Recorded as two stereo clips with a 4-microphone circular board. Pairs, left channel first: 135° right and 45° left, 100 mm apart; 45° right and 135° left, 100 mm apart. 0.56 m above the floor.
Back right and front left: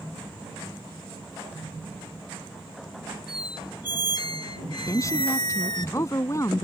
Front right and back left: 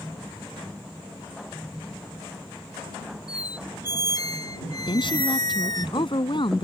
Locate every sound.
3.3 s a squeak: 95° right
4.9 s a woman speaking: 75° right